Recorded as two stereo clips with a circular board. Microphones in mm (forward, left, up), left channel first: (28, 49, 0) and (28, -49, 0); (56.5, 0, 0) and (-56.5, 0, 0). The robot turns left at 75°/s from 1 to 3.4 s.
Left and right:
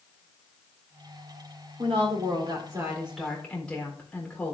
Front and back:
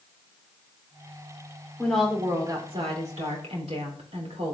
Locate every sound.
1.8 s a woman speaking: 75° right, 3.5 m; by 4.5 s 165° left, 3.5 m